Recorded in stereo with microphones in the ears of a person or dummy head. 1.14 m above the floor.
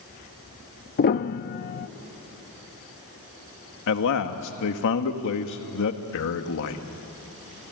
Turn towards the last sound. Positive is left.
turn(degrees=65)  # may be behind; listen again after turning